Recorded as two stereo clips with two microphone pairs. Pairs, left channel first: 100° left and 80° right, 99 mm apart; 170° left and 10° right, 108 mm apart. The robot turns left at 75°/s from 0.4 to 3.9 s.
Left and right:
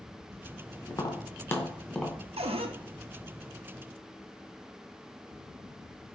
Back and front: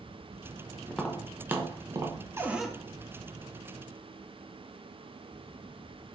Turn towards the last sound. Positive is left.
turn(degrees=165)